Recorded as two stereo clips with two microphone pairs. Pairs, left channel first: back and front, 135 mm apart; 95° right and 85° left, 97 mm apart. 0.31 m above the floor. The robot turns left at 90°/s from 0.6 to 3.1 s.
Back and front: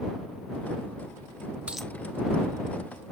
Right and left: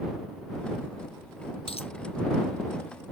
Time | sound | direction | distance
1.7 | a dropped coin | 80° right | ?